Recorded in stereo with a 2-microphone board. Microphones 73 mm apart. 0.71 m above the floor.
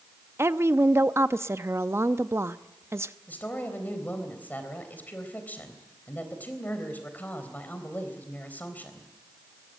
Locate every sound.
0.4 s a woman speaking: 35° right (ahead or behind), 0.6 m
3.3 s a woman speaking: 25° left (ahead or behind), 3.5 m